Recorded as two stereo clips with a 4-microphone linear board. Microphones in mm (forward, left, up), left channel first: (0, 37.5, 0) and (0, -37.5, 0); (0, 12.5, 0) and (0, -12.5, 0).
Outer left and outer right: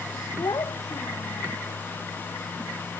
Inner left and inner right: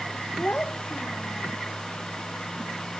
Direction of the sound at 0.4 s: 55° left (ahead or behind).